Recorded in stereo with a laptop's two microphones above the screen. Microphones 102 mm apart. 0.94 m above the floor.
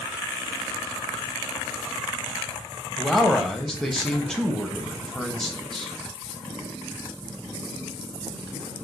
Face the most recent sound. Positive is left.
turn(degrees=5)  # may be behind; listen again after turning